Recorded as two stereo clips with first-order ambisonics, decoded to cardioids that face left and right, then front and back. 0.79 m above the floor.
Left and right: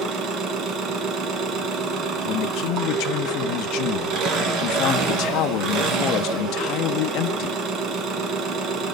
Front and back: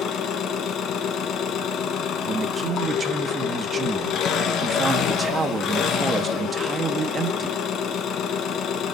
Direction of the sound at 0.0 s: 45° right.